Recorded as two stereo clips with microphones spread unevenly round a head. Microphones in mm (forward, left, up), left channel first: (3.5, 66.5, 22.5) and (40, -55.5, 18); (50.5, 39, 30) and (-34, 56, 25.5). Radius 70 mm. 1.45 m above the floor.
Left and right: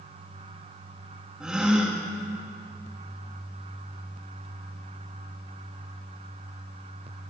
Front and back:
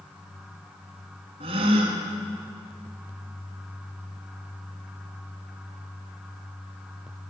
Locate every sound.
1.4 s a gasp: 160° right, 3 m